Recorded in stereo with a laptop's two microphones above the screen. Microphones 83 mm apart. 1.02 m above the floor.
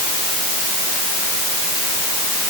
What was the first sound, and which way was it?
Only background noise.